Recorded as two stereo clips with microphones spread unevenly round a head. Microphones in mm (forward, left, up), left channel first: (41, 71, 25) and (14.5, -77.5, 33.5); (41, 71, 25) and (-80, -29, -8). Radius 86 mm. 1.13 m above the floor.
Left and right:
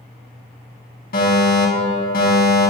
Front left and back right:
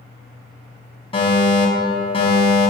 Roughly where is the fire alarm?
Left.